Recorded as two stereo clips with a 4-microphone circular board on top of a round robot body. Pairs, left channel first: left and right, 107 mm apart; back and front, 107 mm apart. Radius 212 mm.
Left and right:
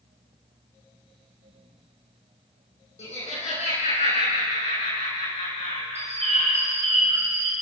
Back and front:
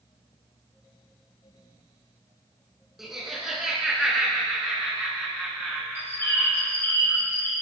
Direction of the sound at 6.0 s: 110° right.